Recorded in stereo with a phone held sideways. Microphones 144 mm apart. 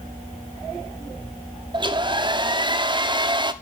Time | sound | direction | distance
1.7 | a hair dryer | 35° right (ahead or behind) | 0.7 m